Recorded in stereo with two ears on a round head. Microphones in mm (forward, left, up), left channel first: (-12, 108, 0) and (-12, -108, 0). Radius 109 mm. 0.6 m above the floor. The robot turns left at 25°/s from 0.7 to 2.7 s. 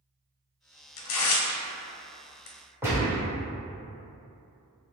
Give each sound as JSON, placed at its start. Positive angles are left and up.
{"t": 1.0, "sound": "tearing paper", "side_deg": 60, "distance_m": 0.6}
{"t": 2.8, "sound": "a gunshot", "side_deg": -10, "distance_m": 1.0}